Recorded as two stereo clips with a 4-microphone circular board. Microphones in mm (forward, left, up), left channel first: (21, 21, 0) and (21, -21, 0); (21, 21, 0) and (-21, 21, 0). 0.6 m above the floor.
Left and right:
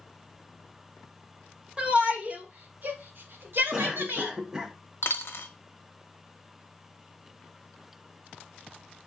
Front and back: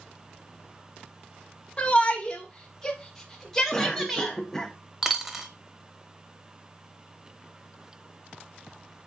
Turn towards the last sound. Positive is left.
turn(degrees=100)